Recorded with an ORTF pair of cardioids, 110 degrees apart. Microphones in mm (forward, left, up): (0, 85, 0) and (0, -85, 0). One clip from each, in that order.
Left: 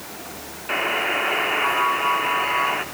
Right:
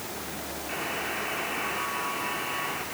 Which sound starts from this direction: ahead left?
A buzzer, at 0.7 s.